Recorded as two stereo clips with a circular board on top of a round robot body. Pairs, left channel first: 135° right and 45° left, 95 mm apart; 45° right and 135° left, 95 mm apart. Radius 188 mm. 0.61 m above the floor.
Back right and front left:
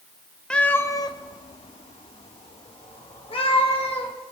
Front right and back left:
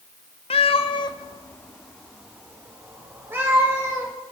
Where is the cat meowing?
55° right, 0.8 m; by 4.1 s 160° right, 2.5 m.